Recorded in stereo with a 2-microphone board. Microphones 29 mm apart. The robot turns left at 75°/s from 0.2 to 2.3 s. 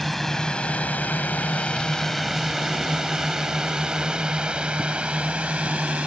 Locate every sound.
0.0 s a drone: 5° left (ahead or behind); by 6.1 s 45° right (ahead or behind)